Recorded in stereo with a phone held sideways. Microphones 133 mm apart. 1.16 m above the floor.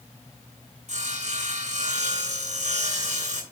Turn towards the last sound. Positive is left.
turn(degrees=-65)  # may be behind; listen again after turning